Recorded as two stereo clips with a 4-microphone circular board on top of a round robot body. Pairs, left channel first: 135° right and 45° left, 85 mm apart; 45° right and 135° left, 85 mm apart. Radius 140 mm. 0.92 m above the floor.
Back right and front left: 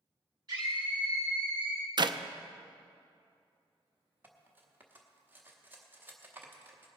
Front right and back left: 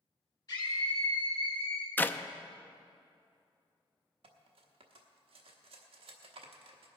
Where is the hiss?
I don't hear a hiss.